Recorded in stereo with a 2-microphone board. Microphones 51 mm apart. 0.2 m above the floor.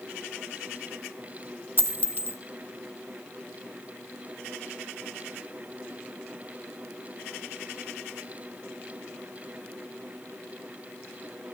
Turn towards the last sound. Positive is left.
turn(degrees=-45)  # may be behind; listen again after turning